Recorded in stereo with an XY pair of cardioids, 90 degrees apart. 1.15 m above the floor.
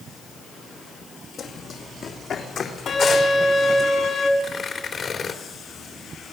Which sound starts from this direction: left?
A violin, at 2.9 s.